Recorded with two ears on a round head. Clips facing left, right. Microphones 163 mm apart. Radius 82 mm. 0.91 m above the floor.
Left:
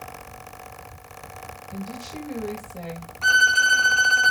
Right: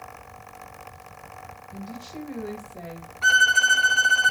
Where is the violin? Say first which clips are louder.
Even; 5° right (ahead or behind), 0.6 m.